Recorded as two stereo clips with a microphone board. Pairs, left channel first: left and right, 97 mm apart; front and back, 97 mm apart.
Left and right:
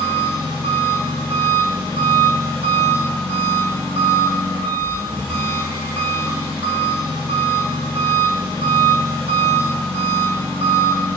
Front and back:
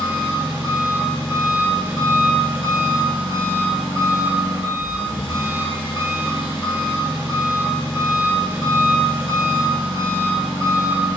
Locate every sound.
0.0 s an engine running: 15° left, 1.9 m